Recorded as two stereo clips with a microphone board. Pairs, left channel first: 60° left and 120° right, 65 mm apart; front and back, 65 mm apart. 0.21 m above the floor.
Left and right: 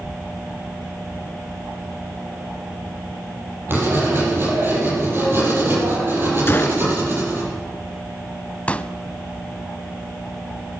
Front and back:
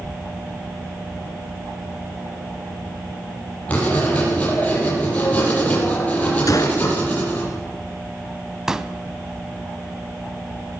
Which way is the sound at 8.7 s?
105° left.